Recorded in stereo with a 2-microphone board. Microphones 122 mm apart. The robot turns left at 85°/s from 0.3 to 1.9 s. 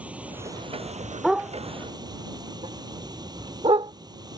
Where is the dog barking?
Centre (ahead or behind); by 3.9 s 50° right (ahead or behind).